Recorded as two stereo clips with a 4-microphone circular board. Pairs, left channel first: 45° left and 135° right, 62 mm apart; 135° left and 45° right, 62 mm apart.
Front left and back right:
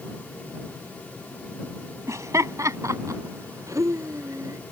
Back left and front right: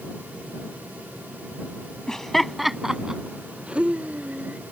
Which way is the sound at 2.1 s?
145° right.